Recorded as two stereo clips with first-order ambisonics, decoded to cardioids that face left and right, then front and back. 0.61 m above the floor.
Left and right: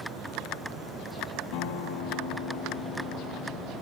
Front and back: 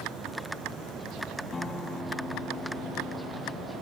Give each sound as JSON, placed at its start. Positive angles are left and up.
{"t": 1.5, "sound": "a guitar", "azimuth_deg": 70, "distance_m": 1.4}